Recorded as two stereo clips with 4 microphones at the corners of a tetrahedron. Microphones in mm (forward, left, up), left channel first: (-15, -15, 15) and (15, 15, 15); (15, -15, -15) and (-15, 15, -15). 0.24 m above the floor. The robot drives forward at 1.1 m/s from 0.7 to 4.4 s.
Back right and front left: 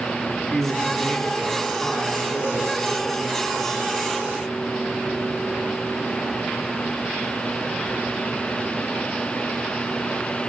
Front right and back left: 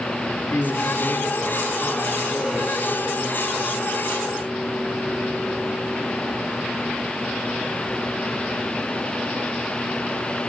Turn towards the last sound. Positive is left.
turn(degrees=-105)